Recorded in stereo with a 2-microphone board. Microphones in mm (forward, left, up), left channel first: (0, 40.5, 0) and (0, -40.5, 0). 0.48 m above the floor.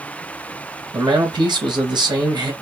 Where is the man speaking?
70° right (ahead or behind), 2.5 m.